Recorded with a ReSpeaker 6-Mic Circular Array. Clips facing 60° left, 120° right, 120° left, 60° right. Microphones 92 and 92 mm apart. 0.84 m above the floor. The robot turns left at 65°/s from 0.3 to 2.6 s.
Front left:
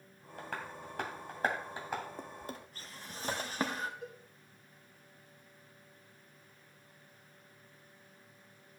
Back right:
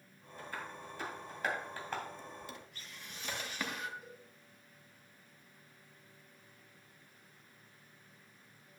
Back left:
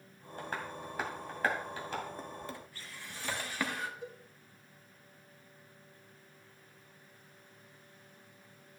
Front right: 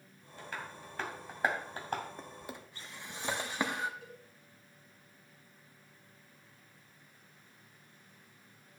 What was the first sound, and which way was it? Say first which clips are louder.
Tapping: front left 2 dB, back left 4 dB; 80° left.